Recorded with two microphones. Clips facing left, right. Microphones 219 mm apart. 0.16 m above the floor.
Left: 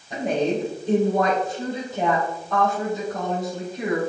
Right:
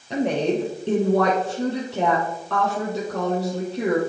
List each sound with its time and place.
0.1 s a woman speaking: 75° right (ahead or behind), 5 m